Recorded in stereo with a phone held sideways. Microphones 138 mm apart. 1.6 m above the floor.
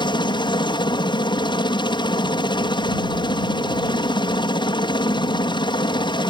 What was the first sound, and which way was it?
A helicopter, 35° left (ahead or behind).